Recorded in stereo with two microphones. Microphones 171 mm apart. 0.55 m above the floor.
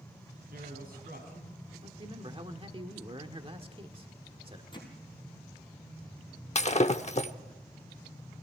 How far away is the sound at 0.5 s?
About 3.5 m.